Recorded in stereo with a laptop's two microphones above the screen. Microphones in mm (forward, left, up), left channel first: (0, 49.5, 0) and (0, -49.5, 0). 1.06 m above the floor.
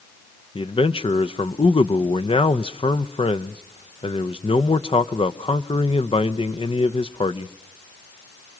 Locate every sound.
0.6 s a man speaking: 60° left (ahead or behind), 0.7 m